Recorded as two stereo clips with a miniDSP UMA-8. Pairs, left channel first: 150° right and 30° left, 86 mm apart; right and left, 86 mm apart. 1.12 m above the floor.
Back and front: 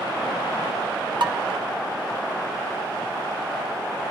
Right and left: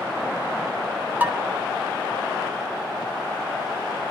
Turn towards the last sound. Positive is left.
turn(degrees=20)